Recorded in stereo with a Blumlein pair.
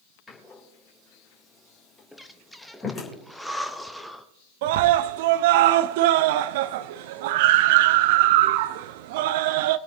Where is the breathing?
Straight ahead, 0.9 m.